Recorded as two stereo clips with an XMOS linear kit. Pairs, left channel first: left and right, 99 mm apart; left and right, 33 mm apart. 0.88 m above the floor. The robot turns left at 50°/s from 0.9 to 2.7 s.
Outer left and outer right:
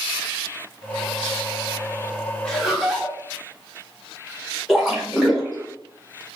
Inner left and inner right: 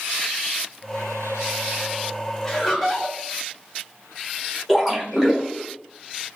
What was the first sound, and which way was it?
Laughter, 10° left (ahead or behind).